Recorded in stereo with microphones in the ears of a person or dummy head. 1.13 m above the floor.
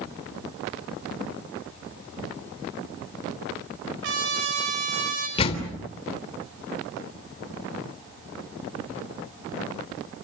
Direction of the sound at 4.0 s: 65° right (ahead or behind).